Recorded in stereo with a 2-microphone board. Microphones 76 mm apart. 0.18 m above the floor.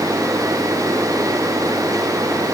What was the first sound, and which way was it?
Only background noise.